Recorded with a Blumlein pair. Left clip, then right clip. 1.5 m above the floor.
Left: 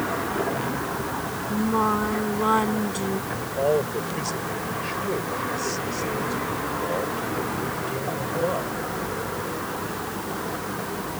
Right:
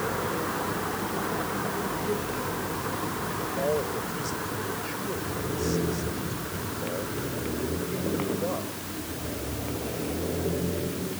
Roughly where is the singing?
Ahead left.